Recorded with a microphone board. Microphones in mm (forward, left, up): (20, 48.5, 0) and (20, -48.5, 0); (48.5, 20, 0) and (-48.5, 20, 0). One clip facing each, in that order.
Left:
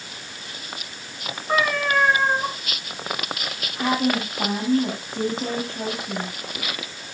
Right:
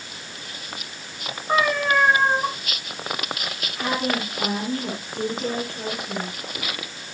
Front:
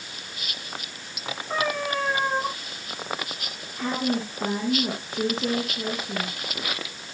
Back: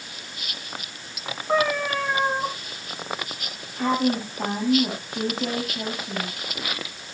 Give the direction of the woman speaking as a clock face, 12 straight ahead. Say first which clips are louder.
Left 3 dB, back 4 dB; 7 o'clock.